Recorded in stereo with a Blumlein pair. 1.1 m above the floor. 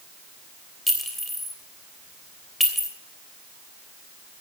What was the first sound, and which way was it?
A clink, straight ahead.